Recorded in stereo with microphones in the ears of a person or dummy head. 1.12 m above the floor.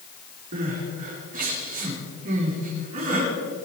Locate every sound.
0.5 s crying: 45° right (ahead or behind), 5.5 m